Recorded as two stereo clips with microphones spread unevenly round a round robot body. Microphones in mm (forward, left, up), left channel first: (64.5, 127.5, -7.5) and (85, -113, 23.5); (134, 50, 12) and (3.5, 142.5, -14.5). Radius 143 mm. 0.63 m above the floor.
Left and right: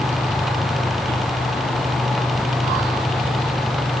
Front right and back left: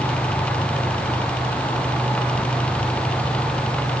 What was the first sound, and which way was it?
Only background noise.